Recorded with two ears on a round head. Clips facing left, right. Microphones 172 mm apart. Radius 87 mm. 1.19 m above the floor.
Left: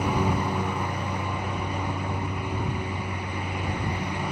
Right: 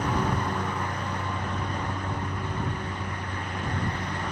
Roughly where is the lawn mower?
Centre.